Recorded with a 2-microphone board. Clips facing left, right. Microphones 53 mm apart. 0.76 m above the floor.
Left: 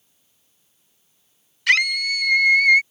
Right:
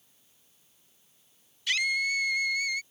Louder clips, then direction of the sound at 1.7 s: Left 9 dB; 65° left (ahead or behind).